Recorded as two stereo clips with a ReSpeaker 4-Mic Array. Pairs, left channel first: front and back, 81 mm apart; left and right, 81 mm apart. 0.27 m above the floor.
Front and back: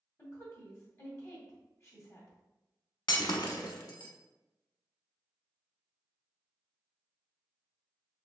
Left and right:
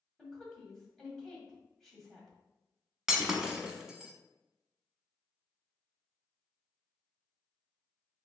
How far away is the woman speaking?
About 1.6 m.